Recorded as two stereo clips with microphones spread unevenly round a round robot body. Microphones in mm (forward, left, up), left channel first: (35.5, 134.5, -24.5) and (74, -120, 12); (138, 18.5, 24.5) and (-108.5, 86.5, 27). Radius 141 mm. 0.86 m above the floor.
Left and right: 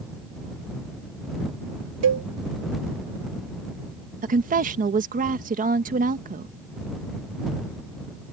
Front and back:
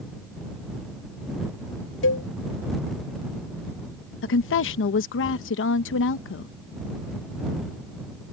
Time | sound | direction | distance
2.0 | a cowbell | 60° right | ?
4.2 | a woman speaking | 25° right | ?